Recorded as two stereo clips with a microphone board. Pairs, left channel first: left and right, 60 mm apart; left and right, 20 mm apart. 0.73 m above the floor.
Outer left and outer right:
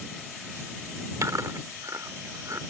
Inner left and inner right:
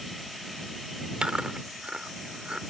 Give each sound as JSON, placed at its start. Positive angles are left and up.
{"t": 1.2, "sound": "chewing", "side_deg": -70}